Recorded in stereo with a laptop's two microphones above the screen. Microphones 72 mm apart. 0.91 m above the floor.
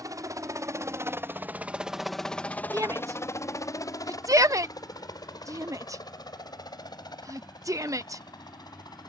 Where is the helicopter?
60° right (ahead or behind); by 9.1 s 80° left.